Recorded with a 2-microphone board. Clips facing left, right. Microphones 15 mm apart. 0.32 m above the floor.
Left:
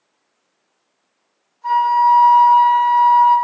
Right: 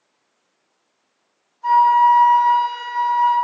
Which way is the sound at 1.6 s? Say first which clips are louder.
Right 1 dB; 30° right (ahead or behind).